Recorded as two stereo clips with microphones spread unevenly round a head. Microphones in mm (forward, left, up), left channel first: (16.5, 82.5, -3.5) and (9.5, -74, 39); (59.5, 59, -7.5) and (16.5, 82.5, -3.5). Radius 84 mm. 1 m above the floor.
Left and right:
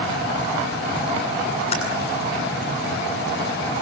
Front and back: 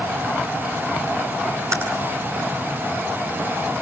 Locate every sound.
1.7 s typing on a keyboard: 145° left, 8.5 m